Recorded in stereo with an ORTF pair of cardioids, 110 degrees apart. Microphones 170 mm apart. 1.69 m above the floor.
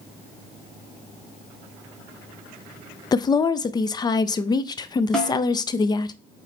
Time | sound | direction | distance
3.1 | a woman speaking | 25° left | 0.5 m
5.1 | a snare drum | 5° left | 1.8 m